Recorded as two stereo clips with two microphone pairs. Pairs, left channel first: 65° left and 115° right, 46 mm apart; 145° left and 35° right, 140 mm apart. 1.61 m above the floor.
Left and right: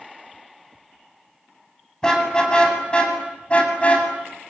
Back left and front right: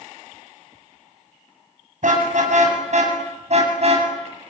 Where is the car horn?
10° right, 7.5 m; by 4.1 s 5° left, 7.5 m.